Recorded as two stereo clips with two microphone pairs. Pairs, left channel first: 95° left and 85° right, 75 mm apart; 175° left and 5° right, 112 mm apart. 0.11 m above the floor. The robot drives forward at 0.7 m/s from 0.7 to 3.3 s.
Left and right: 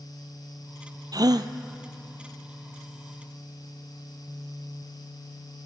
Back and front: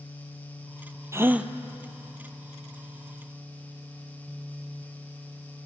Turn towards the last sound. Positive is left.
turn(degrees=-155)